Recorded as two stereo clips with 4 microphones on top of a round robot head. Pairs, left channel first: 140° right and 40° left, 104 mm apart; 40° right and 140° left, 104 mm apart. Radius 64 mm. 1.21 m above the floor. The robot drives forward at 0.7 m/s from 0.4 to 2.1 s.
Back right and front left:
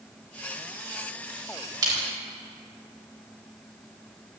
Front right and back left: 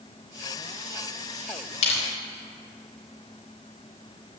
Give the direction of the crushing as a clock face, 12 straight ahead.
12 o'clock.